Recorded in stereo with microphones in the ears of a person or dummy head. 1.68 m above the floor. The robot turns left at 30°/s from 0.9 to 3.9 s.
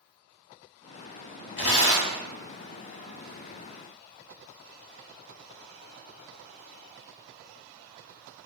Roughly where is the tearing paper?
Left.